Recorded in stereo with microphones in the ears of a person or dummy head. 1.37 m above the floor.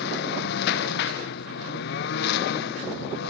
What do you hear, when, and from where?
0.0 s a lawn mower: 70° left (ahead or behind)